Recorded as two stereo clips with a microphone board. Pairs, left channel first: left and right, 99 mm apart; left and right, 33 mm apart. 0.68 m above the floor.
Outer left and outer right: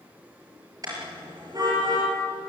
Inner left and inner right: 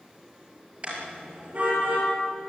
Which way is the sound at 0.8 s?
40° right (ahead or behind).